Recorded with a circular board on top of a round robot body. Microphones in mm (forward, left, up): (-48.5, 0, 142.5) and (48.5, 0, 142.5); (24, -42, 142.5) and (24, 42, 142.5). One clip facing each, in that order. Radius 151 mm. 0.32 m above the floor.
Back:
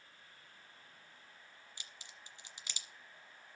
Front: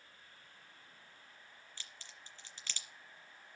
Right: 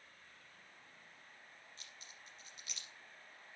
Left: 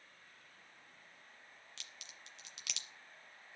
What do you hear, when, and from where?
1.8 s a crack: 105° left, 1.4 m